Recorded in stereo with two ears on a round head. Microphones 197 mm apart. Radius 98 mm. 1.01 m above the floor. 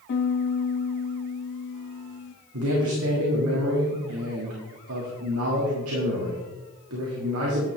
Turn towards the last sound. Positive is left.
turn(degrees=-70)  # may be behind; listen again after turning